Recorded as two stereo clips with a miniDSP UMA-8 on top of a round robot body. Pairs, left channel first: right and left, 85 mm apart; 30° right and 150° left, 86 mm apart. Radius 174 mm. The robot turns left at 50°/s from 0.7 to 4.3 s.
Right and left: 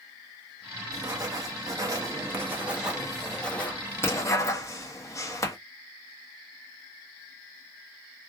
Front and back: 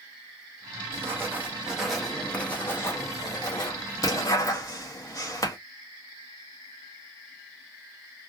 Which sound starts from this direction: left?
Writing, at 0.9 s.